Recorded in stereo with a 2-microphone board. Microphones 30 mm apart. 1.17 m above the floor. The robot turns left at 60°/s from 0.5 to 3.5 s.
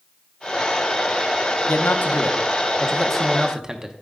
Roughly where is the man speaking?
Left.